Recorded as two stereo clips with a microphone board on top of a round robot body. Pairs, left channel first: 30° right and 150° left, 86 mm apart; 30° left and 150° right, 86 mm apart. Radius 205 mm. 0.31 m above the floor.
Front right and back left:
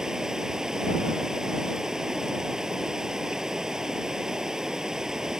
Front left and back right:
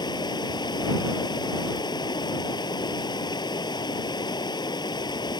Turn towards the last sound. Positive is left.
turn(degrees=65)